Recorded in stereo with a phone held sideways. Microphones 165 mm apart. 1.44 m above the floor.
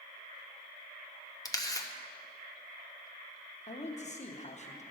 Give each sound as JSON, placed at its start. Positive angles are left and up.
{"t": 1.4, "sound": "a camera shutter", "side_deg": 20, "distance_m": 0.7}
{"t": 3.7, "sound": "a man speaking", "side_deg": 45, "distance_m": 0.9}